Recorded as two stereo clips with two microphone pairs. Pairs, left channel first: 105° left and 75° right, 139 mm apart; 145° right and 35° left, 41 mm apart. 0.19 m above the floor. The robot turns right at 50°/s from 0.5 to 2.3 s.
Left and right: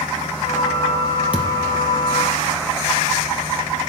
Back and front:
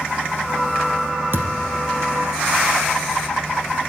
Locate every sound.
1.3 s a thud: 5° left, 3 m; by 1.9 s 30° left, 3 m